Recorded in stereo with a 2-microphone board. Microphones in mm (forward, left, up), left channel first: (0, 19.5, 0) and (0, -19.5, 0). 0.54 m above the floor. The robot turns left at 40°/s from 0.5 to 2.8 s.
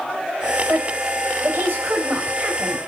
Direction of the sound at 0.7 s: 60° right (ahead or behind).